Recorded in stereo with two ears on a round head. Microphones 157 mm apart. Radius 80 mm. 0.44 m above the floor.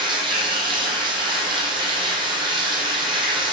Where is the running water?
30° right (ahead or behind), 2.5 m.